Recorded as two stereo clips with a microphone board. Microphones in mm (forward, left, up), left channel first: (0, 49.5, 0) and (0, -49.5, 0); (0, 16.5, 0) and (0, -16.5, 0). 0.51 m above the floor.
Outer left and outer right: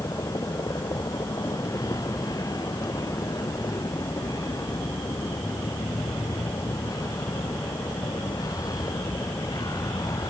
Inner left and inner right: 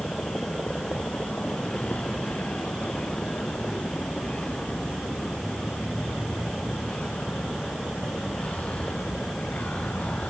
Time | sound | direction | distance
0.0 | a vehicle | 35° left (ahead or behind) | ?